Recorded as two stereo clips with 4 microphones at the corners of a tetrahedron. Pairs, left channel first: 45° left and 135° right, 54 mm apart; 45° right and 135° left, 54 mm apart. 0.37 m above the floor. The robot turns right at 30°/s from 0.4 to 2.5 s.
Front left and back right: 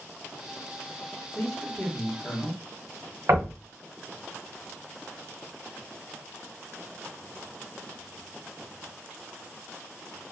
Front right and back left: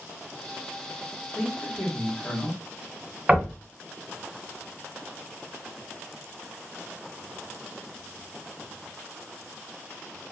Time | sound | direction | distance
1.4 | a man speaking | 5° left | 1.4 m
3.3 | knocking | 155° right | 1.3 m